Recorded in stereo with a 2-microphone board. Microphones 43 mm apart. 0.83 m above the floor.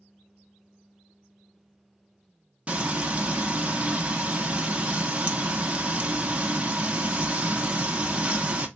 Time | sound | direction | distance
2.7 | frying | 30° right (ahead or behind) | 0.8 m